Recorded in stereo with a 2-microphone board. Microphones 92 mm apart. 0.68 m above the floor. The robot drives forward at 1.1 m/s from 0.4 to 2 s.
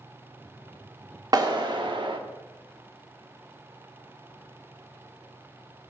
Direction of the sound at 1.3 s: 45° right (ahead or behind).